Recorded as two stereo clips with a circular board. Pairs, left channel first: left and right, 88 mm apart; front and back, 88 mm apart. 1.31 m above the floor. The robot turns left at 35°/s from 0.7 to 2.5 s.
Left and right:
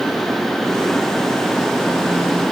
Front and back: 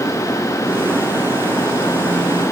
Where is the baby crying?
No baby crying in this recording.